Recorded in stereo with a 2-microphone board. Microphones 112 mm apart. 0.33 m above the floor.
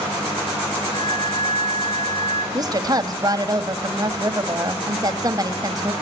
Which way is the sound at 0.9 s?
70° left (ahead or behind).